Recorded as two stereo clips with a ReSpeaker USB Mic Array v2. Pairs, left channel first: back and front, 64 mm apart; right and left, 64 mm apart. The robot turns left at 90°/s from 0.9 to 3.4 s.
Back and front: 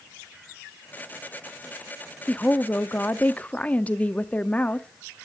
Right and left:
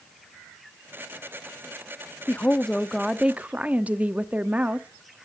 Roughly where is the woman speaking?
Behind right.